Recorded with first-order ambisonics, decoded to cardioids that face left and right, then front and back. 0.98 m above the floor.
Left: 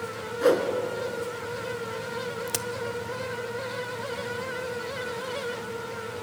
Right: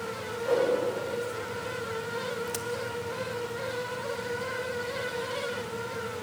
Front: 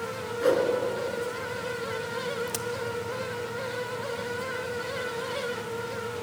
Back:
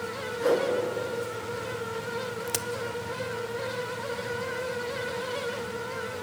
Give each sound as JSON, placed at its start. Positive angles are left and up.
{"t": 0.4, "sound": "a whoosh", "azimuth_deg": 80, "distance_m": 3.0}
{"t": 2.5, "sound": "a crack", "azimuth_deg": 120, "distance_m": 0.6}